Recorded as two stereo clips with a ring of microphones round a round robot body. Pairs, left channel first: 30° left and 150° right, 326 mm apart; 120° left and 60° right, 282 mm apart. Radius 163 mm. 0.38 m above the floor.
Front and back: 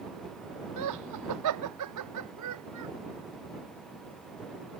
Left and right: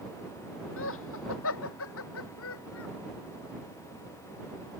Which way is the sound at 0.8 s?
175° left.